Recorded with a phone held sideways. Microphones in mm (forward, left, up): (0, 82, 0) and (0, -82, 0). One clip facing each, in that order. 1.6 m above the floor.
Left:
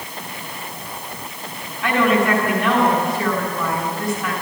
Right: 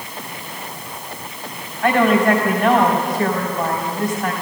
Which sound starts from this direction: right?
A woman speaking, at 1.8 s.